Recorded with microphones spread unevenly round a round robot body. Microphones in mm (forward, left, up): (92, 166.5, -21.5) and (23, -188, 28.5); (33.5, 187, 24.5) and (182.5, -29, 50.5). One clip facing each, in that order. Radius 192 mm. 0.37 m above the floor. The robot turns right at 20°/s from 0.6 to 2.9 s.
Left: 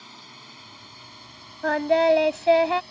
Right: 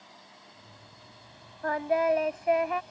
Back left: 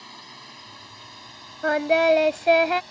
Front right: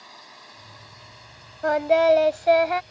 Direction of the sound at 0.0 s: 85° left.